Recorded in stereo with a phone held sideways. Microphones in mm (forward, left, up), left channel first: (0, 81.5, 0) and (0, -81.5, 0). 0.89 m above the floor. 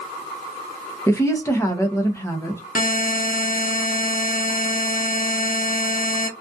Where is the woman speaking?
15° left (ahead or behind), 0.6 m.